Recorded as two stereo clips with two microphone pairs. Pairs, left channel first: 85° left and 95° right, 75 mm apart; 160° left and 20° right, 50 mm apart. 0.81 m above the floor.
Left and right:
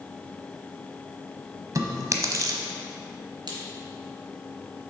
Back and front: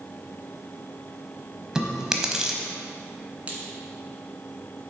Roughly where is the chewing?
Right.